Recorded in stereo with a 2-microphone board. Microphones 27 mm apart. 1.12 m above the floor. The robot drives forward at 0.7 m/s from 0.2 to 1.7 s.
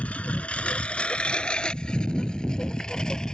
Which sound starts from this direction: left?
A lawn mower, at 0.0 s.